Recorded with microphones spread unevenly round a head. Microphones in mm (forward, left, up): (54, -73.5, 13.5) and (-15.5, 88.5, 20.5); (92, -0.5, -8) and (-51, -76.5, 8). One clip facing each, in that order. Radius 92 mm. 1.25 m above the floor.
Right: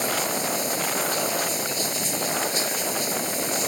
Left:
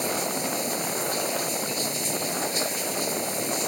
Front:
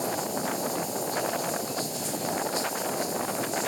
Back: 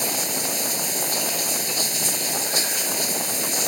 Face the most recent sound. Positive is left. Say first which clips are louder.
# right 1 dB, even
turn(degrees=-155)